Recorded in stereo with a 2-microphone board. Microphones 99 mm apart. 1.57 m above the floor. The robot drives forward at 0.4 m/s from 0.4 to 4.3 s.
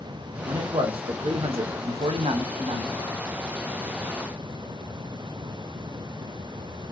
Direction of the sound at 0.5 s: 60° right (ahead or behind).